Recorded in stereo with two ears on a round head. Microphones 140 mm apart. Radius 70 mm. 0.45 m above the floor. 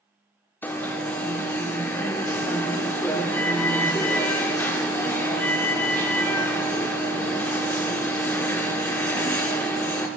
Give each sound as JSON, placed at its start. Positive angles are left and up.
{"t": 0.6, "sound": "an alarm", "side_deg": 10, "distance_m": 0.6}